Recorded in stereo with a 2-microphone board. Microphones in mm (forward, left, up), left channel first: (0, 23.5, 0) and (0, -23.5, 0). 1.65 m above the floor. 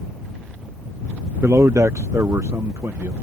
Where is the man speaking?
60° right (ahead or behind); by 3.1 s 75° right (ahead or behind).